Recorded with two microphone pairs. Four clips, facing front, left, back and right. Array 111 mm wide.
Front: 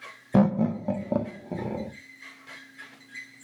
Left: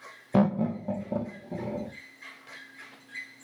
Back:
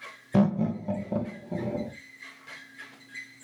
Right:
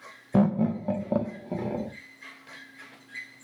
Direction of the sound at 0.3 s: 40° left.